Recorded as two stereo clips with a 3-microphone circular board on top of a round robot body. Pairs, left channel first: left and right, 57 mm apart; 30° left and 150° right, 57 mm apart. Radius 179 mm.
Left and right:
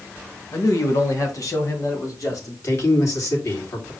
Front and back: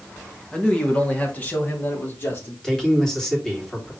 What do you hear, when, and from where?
0.5 s a man speaking: 105° left, 2.5 m; by 2.5 s 75° left, 4 m
2.6 s a man speaking: 110° left, 3 m